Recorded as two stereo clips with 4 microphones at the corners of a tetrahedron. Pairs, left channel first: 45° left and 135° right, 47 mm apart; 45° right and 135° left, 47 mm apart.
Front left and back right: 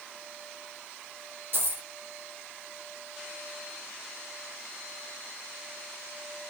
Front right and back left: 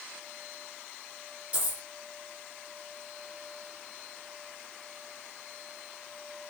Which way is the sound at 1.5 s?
170° right.